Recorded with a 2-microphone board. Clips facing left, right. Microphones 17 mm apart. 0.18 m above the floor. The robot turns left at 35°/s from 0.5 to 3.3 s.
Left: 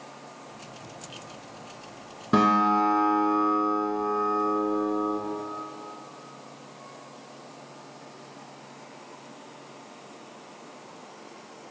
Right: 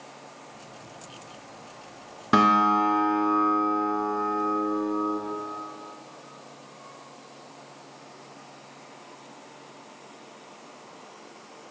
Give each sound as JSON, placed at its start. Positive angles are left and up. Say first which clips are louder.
{"t": 2.3, "sound": "a guitar", "louder": "right 2 dB", "azimuth_deg": -135, "distance_m": 1.3}